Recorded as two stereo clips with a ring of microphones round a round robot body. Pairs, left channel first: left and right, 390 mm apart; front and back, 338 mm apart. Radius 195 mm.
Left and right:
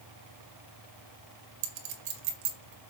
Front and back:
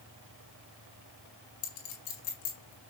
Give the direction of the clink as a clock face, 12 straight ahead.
2 o'clock.